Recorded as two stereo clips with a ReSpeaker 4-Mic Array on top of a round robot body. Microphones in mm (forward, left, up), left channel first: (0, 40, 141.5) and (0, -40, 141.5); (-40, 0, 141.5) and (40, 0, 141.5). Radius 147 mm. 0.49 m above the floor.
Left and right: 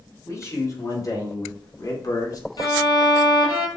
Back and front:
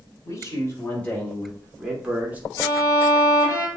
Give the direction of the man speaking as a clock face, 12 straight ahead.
8 o'clock.